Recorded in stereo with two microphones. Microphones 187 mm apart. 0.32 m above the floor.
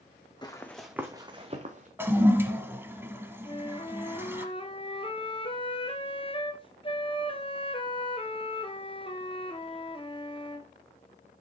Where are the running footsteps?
25° left (ahead or behind), 1.3 m; by 1.9 s 45° right (ahead or behind), 1.9 m.